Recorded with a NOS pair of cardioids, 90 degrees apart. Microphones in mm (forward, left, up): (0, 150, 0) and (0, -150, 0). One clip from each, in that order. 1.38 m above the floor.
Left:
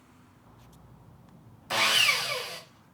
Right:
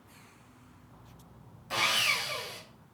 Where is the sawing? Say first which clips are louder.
Left 4 dB; 45° left, 1.3 m.